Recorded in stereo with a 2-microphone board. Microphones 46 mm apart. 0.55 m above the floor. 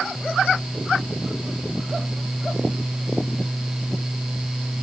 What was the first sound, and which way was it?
Only background noise.